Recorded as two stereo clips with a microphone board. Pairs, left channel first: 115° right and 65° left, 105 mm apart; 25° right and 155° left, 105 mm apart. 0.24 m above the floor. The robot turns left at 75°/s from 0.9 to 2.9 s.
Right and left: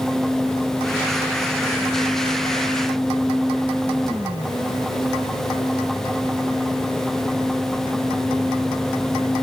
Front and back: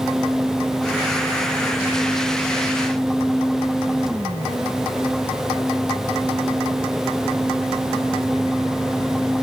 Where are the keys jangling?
I don't hear keys jangling.